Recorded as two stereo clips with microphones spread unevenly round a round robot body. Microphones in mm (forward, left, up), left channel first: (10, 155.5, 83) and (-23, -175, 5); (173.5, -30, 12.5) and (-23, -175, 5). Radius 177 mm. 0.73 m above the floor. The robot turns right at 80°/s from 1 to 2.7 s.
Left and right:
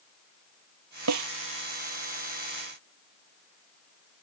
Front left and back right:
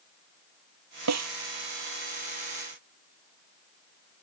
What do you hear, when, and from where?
1.1 s a snare drum: 140° right; by 1.3 s 125° right